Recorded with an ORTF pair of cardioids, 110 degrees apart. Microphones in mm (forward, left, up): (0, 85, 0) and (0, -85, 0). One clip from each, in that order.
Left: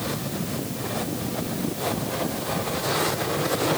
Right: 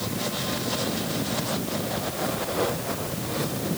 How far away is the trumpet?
No trumpet in this recording.